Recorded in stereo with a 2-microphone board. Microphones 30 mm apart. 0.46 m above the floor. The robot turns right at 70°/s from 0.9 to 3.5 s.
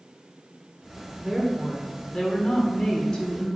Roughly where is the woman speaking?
Ahead.